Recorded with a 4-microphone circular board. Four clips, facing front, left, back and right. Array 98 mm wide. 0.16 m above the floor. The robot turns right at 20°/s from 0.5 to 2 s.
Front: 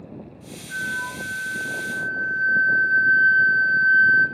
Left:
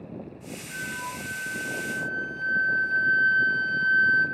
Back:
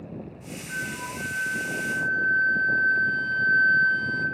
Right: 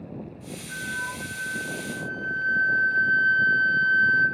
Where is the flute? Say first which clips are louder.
Right 2 dB, front 5 dB; 155° right, 3.5 m; by 4.2 s 125° right, 3.5 m.